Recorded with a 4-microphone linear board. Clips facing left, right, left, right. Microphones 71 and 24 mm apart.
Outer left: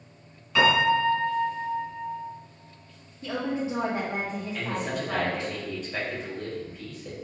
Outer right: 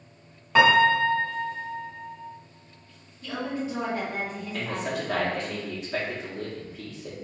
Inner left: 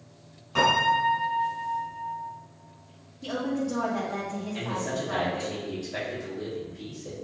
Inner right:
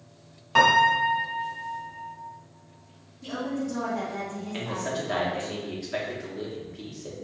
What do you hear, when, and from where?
0.6 s a piano: 50° right (ahead or behind), 1.3 m
3.2 s a woman speaking: 25° left (ahead or behind), 1.5 m
4.5 s a man speaking: 80° right, 1.5 m